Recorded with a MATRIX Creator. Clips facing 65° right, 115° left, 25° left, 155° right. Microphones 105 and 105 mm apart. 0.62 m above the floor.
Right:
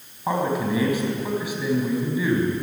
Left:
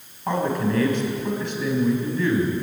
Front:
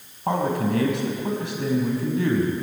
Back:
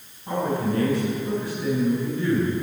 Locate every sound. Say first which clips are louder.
0.3 s a man speaking: even, front 2 dB; 15° left, 5.5 m